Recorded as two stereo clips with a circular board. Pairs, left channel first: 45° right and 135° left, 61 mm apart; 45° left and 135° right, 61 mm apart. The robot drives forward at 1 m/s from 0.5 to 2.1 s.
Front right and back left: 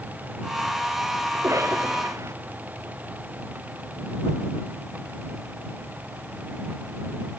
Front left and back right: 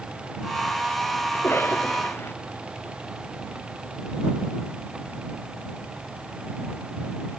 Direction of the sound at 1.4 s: 95° left.